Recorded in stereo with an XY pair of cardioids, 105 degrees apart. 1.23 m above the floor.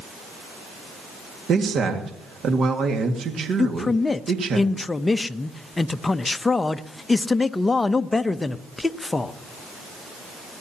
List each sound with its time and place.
1.5 s a man speaking: 60° right, 2.0 m
3.6 s a man speaking: 20° left, 0.7 m